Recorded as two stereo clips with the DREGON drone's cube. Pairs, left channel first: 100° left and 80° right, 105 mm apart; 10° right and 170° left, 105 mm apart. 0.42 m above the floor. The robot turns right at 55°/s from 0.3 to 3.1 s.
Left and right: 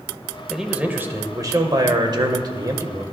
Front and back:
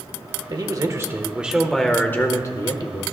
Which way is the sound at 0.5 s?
165° right.